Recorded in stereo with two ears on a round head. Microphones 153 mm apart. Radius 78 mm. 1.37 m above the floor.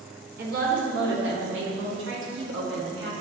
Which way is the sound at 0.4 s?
55° right (ahead or behind).